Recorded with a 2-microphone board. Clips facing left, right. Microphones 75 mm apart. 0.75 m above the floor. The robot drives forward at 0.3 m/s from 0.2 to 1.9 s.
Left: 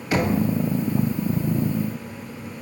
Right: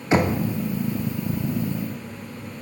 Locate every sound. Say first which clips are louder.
0.1 s knocking: right 2 dB; 25° right (ahead or behind), 0.7 m